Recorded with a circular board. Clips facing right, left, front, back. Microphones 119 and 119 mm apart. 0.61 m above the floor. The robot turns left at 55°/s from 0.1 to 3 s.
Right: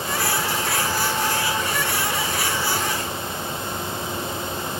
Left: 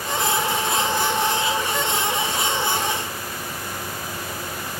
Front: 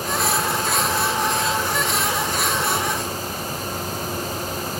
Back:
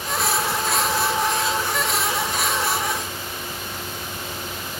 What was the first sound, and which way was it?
Only background noise.